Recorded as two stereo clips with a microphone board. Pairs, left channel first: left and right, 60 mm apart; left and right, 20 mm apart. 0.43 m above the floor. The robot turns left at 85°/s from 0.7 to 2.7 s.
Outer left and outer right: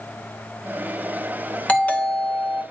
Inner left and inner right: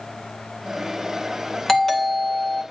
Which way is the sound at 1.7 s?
20° left (ahead or behind).